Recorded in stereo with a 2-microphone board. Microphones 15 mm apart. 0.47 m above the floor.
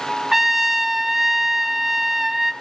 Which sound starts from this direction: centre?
A trumpet, at 0.3 s.